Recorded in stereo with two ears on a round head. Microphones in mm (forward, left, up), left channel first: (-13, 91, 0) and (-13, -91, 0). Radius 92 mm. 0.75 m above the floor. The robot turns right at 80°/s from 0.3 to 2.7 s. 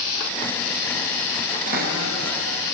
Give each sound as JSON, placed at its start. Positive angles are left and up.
{"t": 1.7, "sound": "a cupboard door", "azimuth_deg": -135, "distance_m": 5.5}